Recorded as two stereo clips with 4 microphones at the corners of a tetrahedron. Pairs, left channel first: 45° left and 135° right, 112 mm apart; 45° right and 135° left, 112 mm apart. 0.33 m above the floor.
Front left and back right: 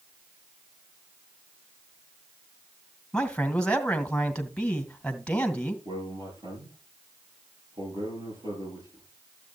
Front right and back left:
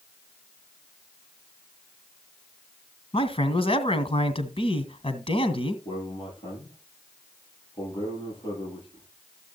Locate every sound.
3.1 s a man speaking: 35° right, 2 m
5.8 s a man speaking: 90° right, 9.5 m